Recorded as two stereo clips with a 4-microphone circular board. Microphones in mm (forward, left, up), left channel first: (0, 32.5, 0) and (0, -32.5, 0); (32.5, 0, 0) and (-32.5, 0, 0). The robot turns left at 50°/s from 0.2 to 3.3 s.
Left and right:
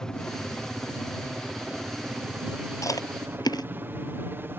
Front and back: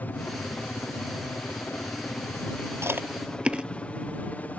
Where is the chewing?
130° left; by 3.7 s 105° left.